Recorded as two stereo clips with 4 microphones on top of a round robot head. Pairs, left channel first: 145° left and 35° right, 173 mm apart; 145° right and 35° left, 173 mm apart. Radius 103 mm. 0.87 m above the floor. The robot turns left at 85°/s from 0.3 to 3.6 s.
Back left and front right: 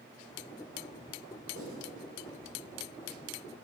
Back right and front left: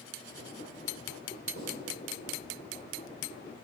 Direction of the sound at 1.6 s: 10° left.